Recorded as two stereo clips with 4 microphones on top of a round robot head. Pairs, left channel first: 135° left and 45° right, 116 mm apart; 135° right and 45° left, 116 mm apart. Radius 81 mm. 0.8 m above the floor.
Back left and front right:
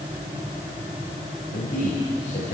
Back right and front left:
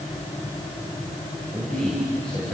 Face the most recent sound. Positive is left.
turn(degrees=140)